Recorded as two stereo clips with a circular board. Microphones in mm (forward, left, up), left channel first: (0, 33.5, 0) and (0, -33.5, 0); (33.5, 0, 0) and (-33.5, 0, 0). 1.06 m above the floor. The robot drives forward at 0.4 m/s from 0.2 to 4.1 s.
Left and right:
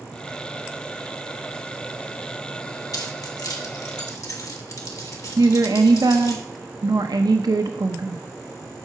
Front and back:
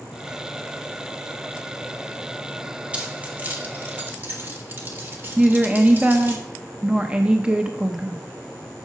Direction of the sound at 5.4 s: 105° right.